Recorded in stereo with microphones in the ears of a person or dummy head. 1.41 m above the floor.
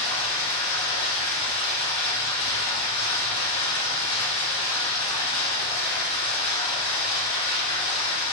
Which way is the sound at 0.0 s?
55° left (ahead or behind).